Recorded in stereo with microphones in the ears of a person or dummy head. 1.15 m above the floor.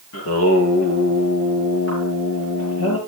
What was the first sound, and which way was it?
Singing, 80° left.